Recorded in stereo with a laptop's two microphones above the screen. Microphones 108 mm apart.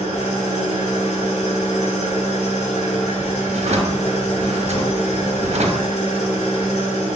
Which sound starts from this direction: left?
An engine running, at 0.0 s.